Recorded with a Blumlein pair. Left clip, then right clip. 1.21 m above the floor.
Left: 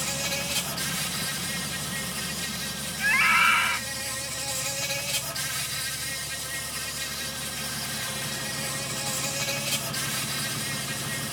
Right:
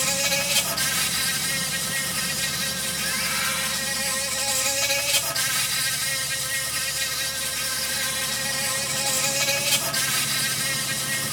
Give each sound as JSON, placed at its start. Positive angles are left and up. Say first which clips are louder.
{"t": 0.0, "sound": "an insect", "louder": "right 6 dB", "azimuth_deg": -70}
{"t": 3.0, "sound": "a scream", "louder": "left 8 dB", "azimuth_deg": 60}